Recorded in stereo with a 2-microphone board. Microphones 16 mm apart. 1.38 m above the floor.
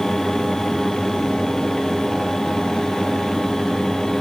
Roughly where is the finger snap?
I don't hear a finger snap.